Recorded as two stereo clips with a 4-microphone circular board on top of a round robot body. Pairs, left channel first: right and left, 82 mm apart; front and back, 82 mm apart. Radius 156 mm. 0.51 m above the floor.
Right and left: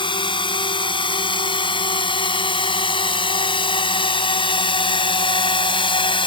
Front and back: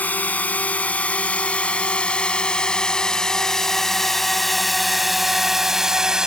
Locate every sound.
0.0 s a drone: 70° right; by 6.3 s 100° right